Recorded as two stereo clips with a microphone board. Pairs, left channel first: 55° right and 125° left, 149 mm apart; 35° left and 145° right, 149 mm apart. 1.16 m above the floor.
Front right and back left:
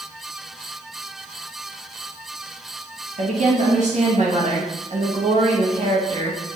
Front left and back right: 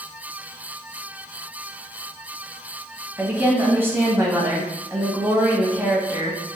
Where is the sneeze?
No sneeze in this recording.